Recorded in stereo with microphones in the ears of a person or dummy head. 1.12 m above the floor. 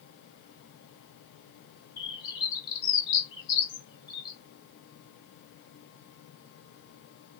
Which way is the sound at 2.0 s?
25° left (ahead or behind).